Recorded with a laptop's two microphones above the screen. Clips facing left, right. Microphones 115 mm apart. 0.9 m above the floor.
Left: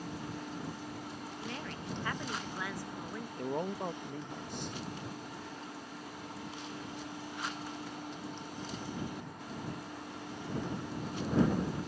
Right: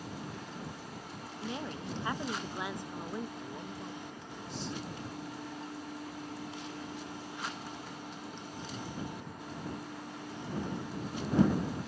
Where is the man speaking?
55° left (ahead or behind).